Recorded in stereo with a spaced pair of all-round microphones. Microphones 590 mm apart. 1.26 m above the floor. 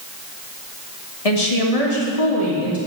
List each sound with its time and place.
1.2 s a woman speaking: 70° left (ahead or behind), 1.4 m; by 2.8 s 75° left (ahead or behind), 3 m